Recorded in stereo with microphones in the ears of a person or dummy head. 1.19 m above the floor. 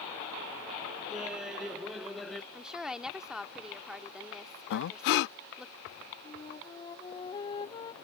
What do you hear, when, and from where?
1.1 s laughter: 5° right (ahead or behind); by 2.4 s centre (ahead or behind)
2.5 s a woman speaking: centre (ahead or behind)
4.7 s breathing: 60° left (ahead or behind)
6.2 s a flute: 25° left (ahead or behind)